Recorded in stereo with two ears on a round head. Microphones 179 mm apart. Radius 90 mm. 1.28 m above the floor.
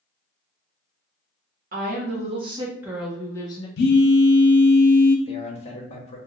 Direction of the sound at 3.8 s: 55° left (ahead or behind).